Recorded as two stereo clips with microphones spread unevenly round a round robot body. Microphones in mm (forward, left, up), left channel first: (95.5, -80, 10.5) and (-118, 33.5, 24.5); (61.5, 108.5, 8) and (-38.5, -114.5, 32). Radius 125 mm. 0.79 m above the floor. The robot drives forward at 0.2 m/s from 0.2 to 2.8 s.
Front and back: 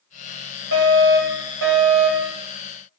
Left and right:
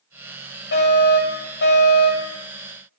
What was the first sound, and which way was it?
A fire alarm, 110° left.